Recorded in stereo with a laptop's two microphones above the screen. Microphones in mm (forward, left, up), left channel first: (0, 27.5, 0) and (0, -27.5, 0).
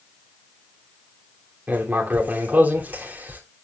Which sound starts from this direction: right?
Writing, at 1.7 s.